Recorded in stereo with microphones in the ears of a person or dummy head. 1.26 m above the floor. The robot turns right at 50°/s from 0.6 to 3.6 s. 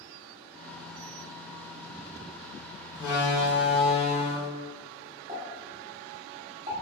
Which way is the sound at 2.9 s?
50° left.